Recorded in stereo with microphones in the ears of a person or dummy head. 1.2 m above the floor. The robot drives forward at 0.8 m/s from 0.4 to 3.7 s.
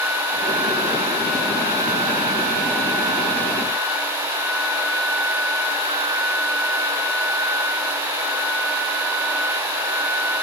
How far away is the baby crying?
I don't hear a baby crying.